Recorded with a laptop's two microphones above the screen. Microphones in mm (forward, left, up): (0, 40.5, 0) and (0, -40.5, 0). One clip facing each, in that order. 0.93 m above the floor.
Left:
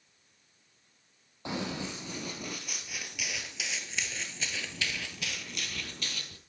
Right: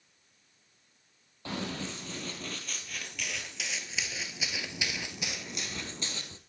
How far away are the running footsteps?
About 1.6 m.